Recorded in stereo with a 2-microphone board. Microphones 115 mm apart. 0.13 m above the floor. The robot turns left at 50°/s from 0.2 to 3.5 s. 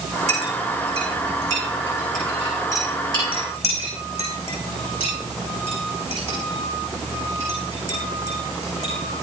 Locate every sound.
0.3 s a clink: 80° right, 5 m; by 8.9 s 65° left (ahead or behind), 5 m